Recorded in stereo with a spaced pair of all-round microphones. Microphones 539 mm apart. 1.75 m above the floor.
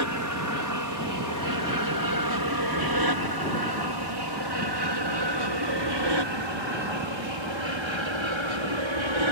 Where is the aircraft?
35° right (ahead or behind); by 9.3 s 60° right (ahead or behind).